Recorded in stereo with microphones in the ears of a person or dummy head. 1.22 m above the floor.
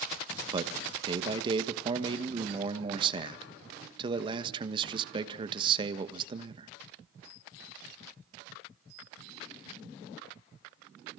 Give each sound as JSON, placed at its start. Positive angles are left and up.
{"t": 0.5, "sound": "a man speaking", "side_deg": -35, "distance_m": 1.4}